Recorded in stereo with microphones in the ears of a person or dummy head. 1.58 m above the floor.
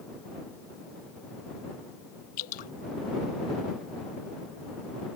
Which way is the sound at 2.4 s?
45° left (ahead or behind).